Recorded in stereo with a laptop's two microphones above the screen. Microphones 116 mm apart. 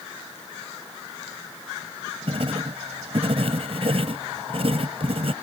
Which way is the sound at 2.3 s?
55° right (ahead or behind).